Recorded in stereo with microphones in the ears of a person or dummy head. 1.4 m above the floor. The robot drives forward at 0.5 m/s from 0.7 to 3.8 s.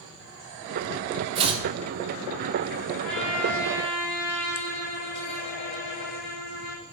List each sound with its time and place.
1.4 s chopping: 30° right (ahead or behind), 1.4 m; by 1.6 s 35° right (ahead or behind), 1.3 m
3.0 s a trumpet: 5° left (ahead or behind), 4.5 m